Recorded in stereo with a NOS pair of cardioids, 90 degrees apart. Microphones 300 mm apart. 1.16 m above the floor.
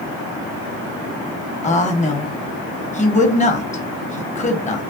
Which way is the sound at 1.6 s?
25° left.